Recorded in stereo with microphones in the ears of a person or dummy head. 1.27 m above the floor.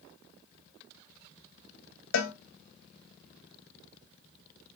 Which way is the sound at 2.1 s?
60° left (ahead or behind).